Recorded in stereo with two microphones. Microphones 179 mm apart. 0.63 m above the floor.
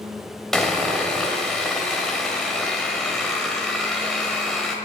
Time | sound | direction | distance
0.5 | sawing | 5° left (ahead or behind) | 2 m